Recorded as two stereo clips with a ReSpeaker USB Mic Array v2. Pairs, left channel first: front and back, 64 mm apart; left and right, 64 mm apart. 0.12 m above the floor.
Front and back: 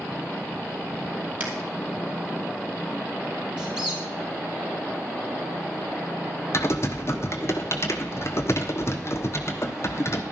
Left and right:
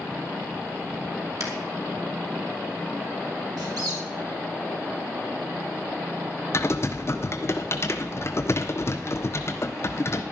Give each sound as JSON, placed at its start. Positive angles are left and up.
{"t": 1.4, "sound": "a finger snap", "azimuth_deg": -115, "distance_m": 2.5}
{"t": 3.6, "sound": "a squeak", "azimuth_deg": -105, "distance_m": 3.0}
{"t": 6.5, "sound": "typing on a keyboard", "azimuth_deg": 45, "distance_m": 1.0}